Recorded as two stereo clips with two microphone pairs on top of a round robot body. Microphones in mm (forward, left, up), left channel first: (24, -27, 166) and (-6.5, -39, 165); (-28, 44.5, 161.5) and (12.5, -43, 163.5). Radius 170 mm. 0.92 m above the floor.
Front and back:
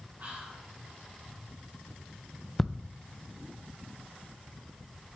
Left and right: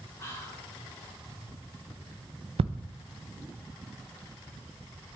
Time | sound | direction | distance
0.2 | whispering | 175° left | 3 m
2.6 | ticking | 65° right | 0.6 m